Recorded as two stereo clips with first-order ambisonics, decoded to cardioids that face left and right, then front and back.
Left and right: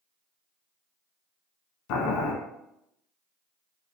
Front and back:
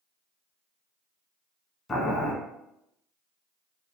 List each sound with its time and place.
1.9 s boiling: 70° left, 1.0 m